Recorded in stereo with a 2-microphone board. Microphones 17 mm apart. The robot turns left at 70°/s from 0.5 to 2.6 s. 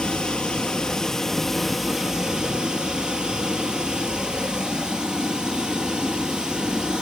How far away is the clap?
No clap in this recording.